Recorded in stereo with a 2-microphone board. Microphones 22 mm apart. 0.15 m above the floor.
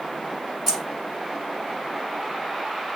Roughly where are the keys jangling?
Right.